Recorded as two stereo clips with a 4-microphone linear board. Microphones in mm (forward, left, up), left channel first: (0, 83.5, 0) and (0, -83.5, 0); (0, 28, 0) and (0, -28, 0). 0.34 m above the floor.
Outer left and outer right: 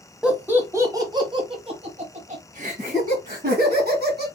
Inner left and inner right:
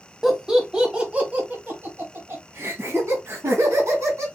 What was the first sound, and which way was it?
Laughter, 5° right (ahead or behind).